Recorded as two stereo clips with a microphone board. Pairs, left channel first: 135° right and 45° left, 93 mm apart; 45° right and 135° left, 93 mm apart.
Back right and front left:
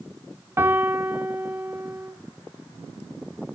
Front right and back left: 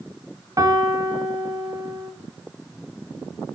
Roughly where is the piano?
Left.